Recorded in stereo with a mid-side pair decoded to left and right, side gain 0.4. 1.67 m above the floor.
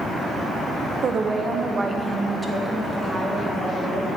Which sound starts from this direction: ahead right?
A woman speaking, at 1.0 s.